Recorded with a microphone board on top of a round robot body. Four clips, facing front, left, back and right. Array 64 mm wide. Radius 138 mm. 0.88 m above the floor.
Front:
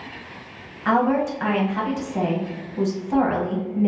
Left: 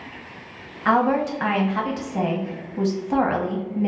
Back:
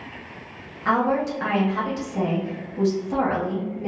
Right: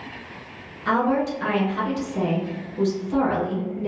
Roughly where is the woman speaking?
Left.